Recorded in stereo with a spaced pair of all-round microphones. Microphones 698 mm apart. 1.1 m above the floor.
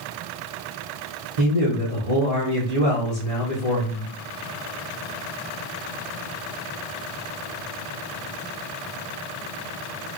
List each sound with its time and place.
1.4 s a man speaking: 55° right (ahead or behind), 1.1 m